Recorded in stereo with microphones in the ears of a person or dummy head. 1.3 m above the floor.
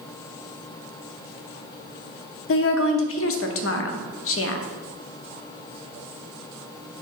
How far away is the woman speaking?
About 0.6 m.